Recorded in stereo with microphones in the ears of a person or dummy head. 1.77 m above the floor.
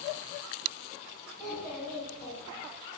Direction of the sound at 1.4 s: Centre (ahead or behind).